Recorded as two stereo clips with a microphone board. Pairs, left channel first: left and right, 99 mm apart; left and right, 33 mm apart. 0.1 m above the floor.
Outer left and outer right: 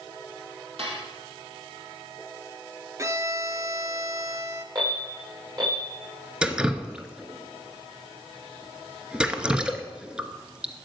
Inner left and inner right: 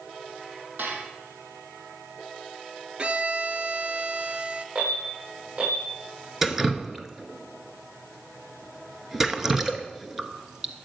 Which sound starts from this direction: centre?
Dripping, at 6.4 s.